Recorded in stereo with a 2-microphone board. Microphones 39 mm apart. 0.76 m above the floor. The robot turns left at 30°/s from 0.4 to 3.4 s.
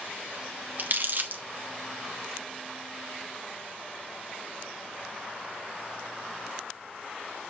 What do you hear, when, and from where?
0.8 s crumpling: 50° right (ahead or behind), 1.0 m